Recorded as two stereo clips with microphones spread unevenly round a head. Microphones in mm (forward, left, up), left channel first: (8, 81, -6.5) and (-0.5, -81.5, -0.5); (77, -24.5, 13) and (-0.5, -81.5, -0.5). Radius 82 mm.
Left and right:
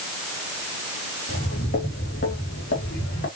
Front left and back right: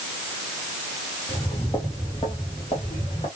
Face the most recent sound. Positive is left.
turn(degrees=80)